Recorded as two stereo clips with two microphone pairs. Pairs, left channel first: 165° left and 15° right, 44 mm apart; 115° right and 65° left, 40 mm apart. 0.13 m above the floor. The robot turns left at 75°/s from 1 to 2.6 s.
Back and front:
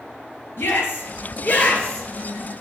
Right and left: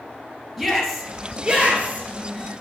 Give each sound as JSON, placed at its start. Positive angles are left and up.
{"t": 0.6, "sound": "a shout", "azimuth_deg": 160, "distance_m": 2.0}